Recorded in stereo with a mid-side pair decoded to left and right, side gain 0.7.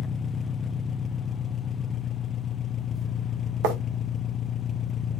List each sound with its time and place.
0.0 s an engine running: 30° left, 0.7 m
3.6 s writing: 65° right, 2.0 m